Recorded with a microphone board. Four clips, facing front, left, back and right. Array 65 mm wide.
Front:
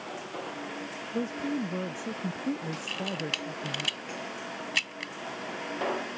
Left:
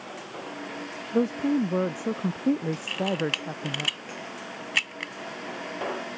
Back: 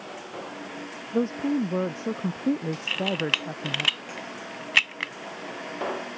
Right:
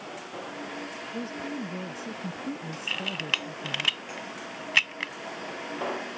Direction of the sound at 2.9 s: 165° right.